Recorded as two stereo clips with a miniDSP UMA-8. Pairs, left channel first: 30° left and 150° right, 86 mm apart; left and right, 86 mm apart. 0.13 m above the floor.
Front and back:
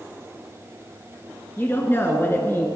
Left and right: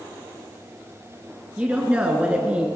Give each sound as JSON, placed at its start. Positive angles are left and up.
{"t": 1.6, "sound": "a woman speaking", "azimuth_deg": -20, "distance_m": 1.4}